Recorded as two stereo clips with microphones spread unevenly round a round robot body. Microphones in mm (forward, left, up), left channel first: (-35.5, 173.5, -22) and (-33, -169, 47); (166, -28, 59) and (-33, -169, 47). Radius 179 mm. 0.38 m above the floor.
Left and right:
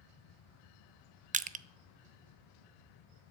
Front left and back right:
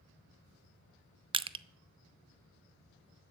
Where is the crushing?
155° right, 0.5 m.